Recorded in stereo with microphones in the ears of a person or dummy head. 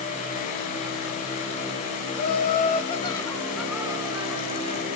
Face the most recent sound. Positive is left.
turn(degrees=-45)  # may be behind; listen again after turning